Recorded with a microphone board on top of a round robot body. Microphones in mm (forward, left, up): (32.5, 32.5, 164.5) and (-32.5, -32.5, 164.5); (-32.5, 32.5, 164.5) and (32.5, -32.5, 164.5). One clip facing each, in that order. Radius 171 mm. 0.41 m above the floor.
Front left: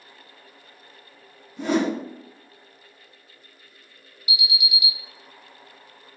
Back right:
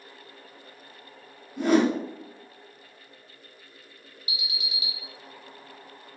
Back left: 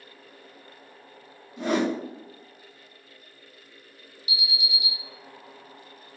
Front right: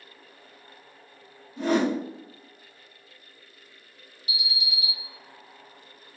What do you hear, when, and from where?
1.6 s a whoosh: 95° right, 1.9 m
4.3 s an alarm: 80° right, 1.2 m